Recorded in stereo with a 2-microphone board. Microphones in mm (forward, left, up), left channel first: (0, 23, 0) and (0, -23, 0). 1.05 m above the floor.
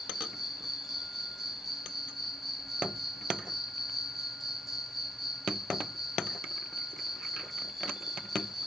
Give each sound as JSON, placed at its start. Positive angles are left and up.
{"t": 0.0, "sound": "an insect", "side_deg": -5, "distance_m": 0.9}